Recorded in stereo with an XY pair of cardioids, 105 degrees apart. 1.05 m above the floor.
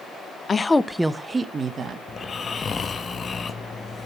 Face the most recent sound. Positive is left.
turn(degrees=40)